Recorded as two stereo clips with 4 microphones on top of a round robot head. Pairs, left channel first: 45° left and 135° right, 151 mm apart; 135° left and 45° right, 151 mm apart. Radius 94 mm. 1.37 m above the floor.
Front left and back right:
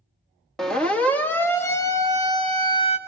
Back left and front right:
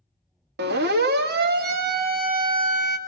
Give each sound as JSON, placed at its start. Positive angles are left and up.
{"t": 0.6, "sound": "a siren", "azimuth_deg": -40, "distance_m": 2.0}